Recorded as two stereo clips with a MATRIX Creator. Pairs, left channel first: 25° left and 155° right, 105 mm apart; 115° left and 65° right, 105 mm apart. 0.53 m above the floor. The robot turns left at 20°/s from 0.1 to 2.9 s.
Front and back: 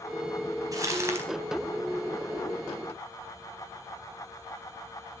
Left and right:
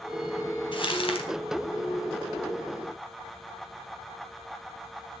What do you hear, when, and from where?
0.7 s crumpling: 150° left, 4 m; by 1.3 s 135° left, 4 m